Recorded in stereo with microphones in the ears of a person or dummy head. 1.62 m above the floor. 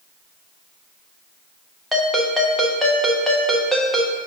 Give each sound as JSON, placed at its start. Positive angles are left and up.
{"t": 1.9, "sound": "a ringtone", "side_deg": 0, "distance_m": 1.1}